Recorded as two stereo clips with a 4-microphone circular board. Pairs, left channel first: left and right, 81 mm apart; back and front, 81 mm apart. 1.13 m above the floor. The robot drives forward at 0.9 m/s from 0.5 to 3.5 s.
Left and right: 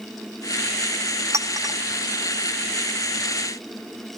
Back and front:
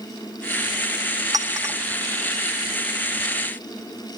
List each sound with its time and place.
1.3 s a clink: 40° right, 0.9 m; by 1.8 s 60° right, 0.6 m